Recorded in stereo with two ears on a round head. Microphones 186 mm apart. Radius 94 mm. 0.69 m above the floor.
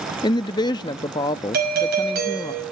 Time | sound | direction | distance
0.2 | a woman speaking | 20° left (ahead or behind) | 0.6 m
1.5 | a doorbell | 50° right (ahead or behind) | 5.5 m